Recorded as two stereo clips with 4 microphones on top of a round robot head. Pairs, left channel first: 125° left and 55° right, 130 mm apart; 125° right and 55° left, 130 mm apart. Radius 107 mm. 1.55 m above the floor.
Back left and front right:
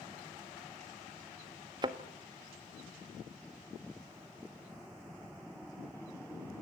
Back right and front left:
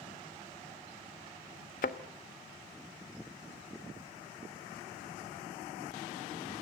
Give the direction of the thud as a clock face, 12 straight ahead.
4 o'clock.